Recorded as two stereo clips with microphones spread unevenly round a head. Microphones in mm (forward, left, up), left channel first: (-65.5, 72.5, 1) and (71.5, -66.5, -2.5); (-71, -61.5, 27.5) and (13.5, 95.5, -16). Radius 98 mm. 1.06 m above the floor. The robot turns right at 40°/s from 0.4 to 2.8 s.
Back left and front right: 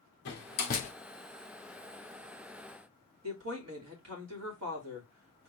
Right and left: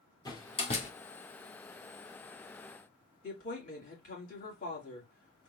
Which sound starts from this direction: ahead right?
A woman speaking, at 3.2 s.